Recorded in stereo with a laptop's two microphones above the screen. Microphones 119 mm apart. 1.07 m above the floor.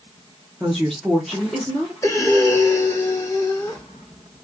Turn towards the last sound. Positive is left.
turn(degrees=25)  # may be behind; listen again after turning